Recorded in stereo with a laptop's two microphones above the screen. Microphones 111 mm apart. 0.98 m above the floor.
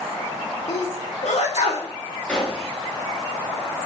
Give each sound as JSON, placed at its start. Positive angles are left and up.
{"t": 0.7, "sound": "a sneeze", "side_deg": 75, "distance_m": 1.9}
{"t": 2.3, "sound": "a gunshot", "side_deg": 10, "distance_m": 1.2}